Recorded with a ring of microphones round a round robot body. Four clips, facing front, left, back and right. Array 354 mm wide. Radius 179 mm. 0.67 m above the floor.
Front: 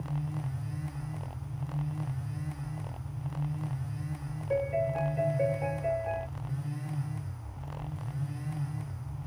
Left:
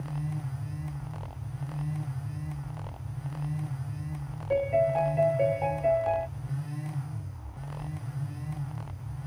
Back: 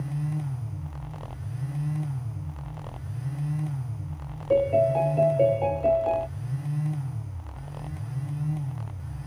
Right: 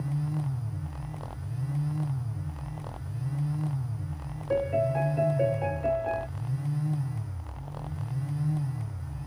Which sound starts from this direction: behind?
A piano, at 4.5 s.